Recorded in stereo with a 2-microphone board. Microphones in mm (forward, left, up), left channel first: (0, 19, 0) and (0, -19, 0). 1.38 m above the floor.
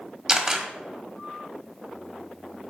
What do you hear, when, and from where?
0.3 s a camera shutter: 15° right (ahead or behind), 1.2 m